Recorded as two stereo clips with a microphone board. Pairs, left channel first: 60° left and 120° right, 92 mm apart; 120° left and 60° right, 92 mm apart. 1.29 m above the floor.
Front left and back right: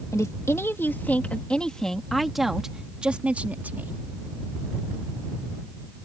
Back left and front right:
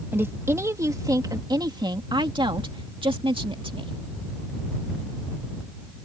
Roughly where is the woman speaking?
Ahead.